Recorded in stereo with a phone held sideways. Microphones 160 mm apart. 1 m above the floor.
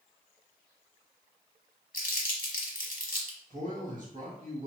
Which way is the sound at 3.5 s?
55° right (ahead or behind).